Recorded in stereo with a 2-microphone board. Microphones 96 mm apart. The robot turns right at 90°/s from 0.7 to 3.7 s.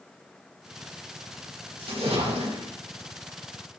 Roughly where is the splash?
Behind right.